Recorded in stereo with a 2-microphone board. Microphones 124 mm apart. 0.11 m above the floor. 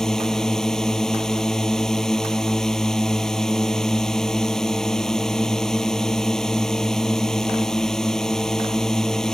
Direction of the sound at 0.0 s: 5° left (ahead or behind).